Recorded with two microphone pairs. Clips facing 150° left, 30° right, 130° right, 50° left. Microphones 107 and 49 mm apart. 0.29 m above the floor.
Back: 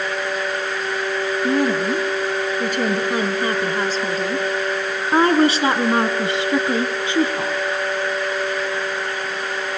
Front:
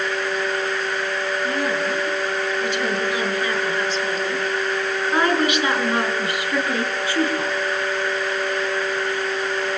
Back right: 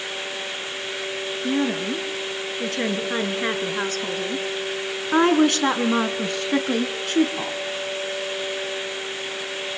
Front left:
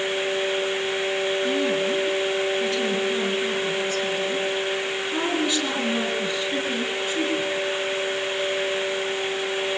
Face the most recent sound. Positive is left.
turn(degrees=-135)